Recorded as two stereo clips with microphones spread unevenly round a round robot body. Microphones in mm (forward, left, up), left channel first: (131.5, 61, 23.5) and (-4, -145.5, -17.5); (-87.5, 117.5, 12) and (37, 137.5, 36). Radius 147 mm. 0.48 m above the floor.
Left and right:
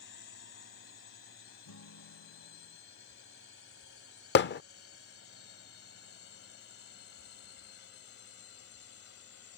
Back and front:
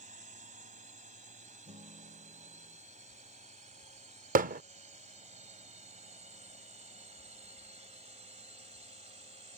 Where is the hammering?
5° left.